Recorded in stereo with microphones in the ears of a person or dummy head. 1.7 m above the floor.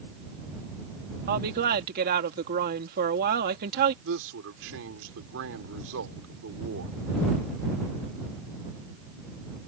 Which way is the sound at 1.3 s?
55° right (ahead or behind).